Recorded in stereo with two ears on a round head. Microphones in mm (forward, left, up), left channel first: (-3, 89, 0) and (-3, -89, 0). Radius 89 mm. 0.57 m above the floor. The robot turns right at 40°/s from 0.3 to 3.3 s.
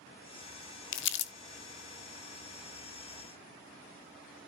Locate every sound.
0.9 s crumpling: 70° left (ahead or behind), 0.9 m; by 1.3 s 55° left (ahead or behind), 0.9 m